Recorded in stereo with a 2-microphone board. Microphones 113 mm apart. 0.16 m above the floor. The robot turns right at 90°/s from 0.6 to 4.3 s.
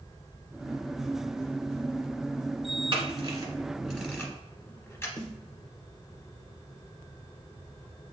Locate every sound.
2.9 s a camera shutter: 45° right (ahead or behind), 1.4 m; by 5.1 s 25° left (ahead or behind), 1.4 m
5.2 s a snare drum: 40° left (ahead or behind), 1.2 m